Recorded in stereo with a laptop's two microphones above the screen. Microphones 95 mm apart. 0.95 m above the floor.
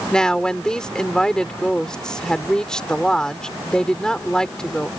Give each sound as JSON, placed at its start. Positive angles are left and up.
{"t": 0.1, "sound": "a woman speaking", "side_deg": 5}